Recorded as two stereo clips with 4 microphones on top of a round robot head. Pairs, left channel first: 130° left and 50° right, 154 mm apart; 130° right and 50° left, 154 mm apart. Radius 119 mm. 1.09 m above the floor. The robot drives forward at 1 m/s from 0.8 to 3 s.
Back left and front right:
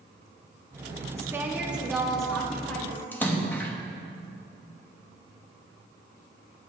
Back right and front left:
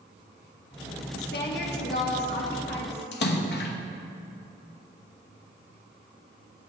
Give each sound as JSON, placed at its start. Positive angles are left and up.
{"t": 1.1, "sound": "a woman speaking", "azimuth_deg": -120, "distance_m": 2.0}
{"t": 3.1, "sound": "a splash", "azimuth_deg": -150, "distance_m": 1.1}